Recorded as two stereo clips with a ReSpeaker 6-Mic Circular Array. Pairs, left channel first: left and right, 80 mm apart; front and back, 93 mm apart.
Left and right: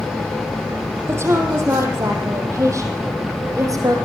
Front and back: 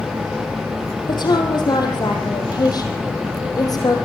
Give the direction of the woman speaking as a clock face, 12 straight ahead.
1 o'clock.